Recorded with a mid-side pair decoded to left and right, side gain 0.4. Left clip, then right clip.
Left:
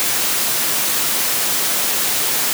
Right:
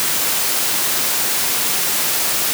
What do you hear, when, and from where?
Only background noise.